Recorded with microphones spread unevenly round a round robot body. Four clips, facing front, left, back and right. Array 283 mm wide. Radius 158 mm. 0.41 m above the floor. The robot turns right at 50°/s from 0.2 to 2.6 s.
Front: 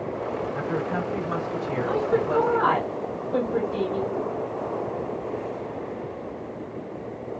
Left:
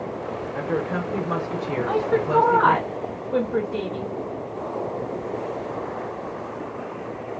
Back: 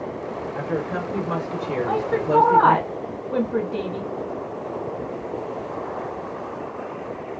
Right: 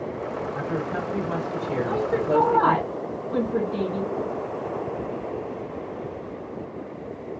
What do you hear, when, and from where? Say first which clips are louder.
0.5 s a woman speaking: left 5 dB, back 4 dB; 110° left, 1.2 m; by 2.9 s 145° right, 1.2 m
1.9 s a woman speaking: left 3 dB, back 1 dB; 140° left, 1.7 m; by 4.1 s straight behind, 1.7 m